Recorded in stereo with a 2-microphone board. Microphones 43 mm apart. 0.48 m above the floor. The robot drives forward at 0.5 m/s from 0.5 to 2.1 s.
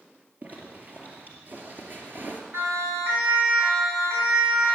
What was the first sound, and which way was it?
A zipper, 35° right (ahead or behind).